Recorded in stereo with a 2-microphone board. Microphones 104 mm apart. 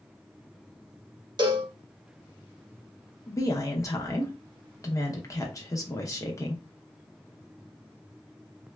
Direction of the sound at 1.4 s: 50° right (ahead or behind).